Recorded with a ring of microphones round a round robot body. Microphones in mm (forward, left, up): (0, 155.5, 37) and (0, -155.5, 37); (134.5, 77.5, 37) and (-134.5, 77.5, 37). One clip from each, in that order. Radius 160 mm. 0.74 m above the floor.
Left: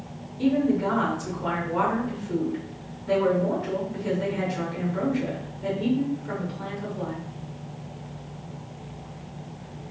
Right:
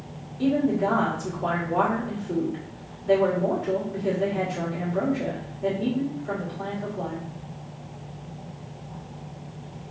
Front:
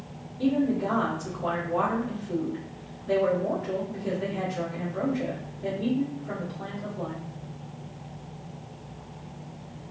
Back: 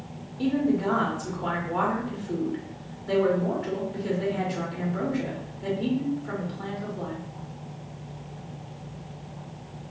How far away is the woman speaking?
About 2.5 m.